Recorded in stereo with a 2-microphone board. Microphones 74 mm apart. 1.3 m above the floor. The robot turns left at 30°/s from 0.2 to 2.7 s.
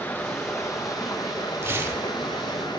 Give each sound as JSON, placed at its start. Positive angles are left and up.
{"t": 0.0, "sound": "running water", "azimuth_deg": 155, "distance_m": 1.2}
{"t": 1.6, "sound": "tearing paper", "side_deg": -30, "distance_m": 1.0}